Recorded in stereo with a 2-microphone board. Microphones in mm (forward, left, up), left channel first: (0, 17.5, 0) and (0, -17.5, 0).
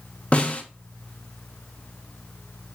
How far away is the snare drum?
About 1.7 m.